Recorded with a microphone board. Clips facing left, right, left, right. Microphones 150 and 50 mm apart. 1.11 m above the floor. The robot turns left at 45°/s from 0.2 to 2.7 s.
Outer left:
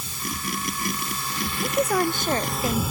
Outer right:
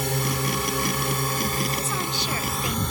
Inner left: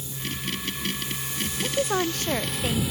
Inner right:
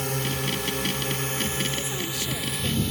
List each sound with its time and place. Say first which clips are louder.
0.0 s a drone: outer right 7 dB, inner right 6 dB; 75° right; by 2.9 s 175° left
1.6 s a woman speaking: outer left 6 dB, inner left 5 dB; 80° left; by 2.8 s 35° left